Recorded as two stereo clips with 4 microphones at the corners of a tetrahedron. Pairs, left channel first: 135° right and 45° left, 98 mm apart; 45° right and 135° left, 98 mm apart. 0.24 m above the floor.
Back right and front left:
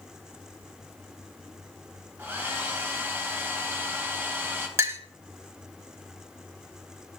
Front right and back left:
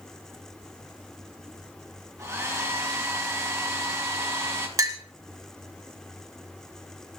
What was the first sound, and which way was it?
A hair dryer, 100° left.